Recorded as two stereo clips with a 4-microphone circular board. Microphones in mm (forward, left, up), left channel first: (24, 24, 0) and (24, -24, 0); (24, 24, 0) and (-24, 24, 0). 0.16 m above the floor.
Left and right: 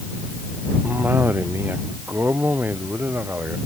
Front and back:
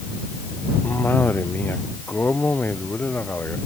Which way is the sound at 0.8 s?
45° right.